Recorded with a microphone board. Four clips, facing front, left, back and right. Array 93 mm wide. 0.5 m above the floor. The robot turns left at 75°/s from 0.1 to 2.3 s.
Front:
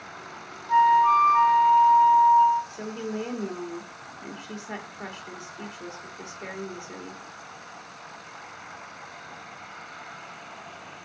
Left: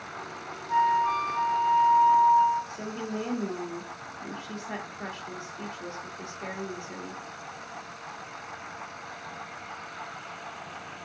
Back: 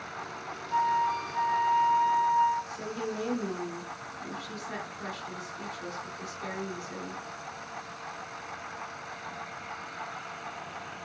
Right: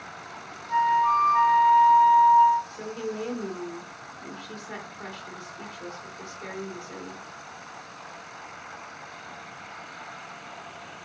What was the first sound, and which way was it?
A flute, 5° right.